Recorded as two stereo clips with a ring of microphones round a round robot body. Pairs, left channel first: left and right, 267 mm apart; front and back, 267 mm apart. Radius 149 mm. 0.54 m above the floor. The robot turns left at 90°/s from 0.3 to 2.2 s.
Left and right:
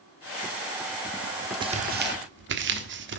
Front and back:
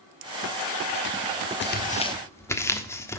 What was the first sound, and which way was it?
Tearing paper, 25° right.